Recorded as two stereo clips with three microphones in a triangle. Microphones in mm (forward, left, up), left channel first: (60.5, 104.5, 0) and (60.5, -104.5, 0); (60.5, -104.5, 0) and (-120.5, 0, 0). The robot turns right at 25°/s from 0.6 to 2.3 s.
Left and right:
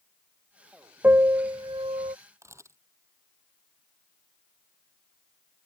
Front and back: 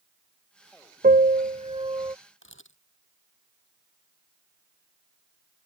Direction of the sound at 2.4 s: 15° right.